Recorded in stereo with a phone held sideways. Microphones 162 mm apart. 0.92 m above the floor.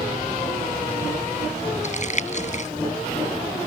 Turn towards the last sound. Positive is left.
turn(degrees=50)  # may be behind; listen again after turning